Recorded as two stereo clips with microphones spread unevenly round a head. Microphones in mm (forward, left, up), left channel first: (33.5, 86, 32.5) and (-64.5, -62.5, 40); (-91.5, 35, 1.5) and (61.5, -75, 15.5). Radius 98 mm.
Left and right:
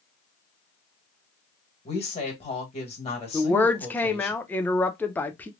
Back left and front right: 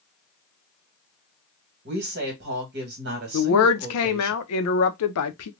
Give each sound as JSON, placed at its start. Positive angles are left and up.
{"t": 1.9, "sound": "a woman speaking", "azimuth_deg": 0, "distance_m": 1.6}
{"t": 3.3, "sound": "a woman speaking", "azimuth_deg": 135, "distance_m": 0.5}